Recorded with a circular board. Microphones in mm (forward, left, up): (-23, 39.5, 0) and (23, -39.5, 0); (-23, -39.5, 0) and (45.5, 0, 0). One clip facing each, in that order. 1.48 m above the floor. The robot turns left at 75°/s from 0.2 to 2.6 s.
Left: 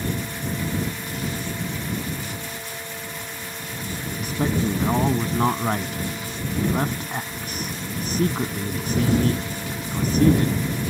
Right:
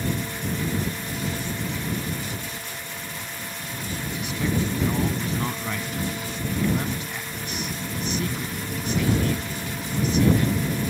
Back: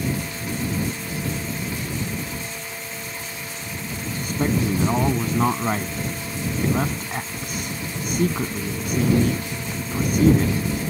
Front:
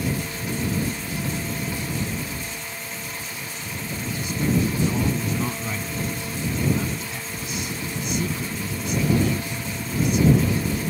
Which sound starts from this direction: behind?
A man speaking, at 4.1 s.